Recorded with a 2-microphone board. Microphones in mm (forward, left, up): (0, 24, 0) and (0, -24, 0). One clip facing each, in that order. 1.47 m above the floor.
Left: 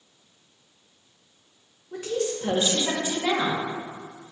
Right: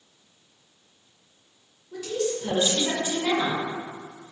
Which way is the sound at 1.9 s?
35° left (ahead or behind).